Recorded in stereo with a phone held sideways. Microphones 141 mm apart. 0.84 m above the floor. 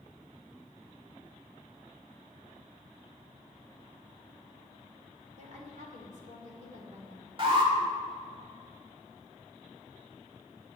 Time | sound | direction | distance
5.4 | a woman speaking | 60° right (ahead or behind) | 2.5 m
7.4 | an alarm | 40° right (ahead or behind) | 2.0 m